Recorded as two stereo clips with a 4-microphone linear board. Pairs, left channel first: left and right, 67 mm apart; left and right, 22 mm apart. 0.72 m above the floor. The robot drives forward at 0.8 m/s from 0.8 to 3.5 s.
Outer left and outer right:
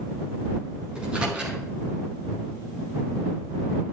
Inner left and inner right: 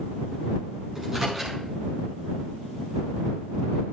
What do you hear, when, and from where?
0.9 s a microwave: 15° right (ahead or behind), 6.5 m; by 1.6 s 20° right (ahead or behind), 6 m